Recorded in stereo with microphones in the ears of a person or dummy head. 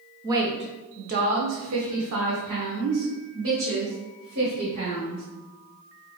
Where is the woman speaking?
15° right (ahead or behind), 0.9 m; by 5.2 s 65° right (ahead or behind), 2.5 m.